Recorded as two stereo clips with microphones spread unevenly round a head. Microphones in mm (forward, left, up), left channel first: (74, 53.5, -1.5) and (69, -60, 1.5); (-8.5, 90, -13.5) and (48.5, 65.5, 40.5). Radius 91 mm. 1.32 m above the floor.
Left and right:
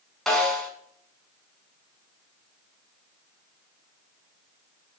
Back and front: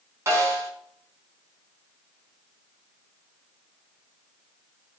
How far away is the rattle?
I don't hear a rattle.